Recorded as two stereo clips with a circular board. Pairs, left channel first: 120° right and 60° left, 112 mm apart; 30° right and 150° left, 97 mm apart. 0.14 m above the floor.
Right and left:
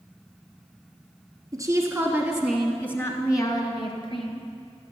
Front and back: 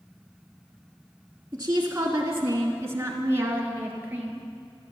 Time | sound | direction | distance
1.5 | a woman speaking | 100° left | 2 m